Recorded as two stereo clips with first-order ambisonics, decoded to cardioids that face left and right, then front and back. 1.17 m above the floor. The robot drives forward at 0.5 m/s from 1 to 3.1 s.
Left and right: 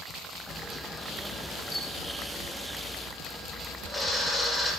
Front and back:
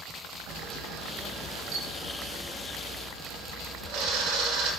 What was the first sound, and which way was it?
A camera shutter, 165° left.